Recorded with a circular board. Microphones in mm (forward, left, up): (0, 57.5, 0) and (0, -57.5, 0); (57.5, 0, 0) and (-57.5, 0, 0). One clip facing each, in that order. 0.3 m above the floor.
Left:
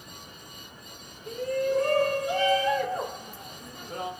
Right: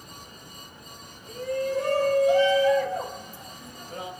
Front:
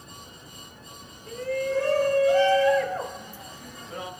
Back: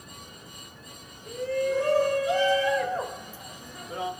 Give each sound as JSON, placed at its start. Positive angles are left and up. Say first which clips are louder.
{"t": 1.3, "sound": "a shout", "louder": "left 1 dB, back 1 dB", "azimuth_deg": 110, "distance_m": 4.0}